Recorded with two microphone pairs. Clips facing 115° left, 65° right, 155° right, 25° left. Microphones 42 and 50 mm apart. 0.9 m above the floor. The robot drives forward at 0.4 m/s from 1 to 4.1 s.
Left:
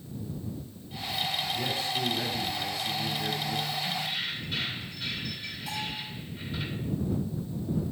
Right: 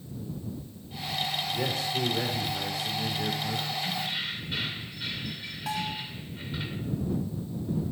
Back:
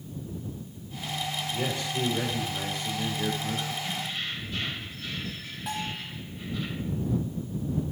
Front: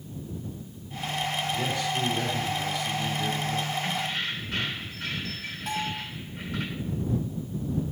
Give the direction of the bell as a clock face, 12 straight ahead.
2 o'clock.